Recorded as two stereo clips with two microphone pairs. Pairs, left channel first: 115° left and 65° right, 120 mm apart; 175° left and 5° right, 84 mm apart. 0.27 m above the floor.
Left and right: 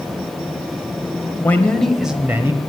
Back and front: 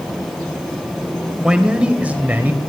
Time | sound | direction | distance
1.4 | a man speaking | 65° left | 1.1 m